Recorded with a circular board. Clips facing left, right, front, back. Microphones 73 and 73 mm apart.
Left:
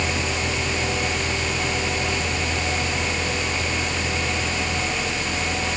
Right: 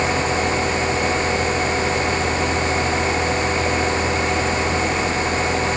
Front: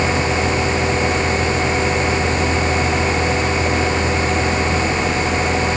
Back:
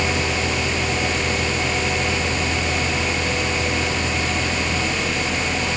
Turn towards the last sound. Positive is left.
No sound to turn to.